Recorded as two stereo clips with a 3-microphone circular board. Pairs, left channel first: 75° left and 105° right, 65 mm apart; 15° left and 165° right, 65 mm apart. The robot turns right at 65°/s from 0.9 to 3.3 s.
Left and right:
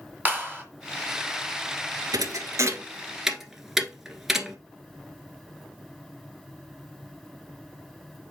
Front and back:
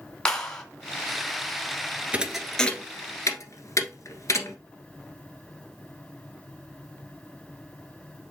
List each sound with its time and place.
0.2 s a clap: 60° right, 1.6 m
2.1 s a thud: 95° right, 1.1 m; by 4.6 s 20° right, 1.1 m